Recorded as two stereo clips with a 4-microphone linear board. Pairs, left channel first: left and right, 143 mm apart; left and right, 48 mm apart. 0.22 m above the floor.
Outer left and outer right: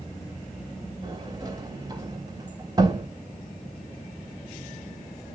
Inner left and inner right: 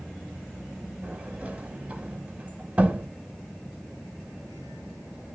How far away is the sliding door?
About 0.7 m.